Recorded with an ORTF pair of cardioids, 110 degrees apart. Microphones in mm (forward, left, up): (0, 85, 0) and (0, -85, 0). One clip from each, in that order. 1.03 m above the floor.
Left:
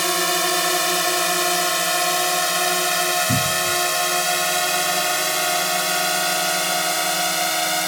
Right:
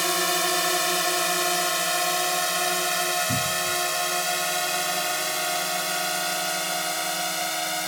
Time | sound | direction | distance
0.0 | a drone | 20° left | ?
3.3 | a cupboard door | 45° left | ?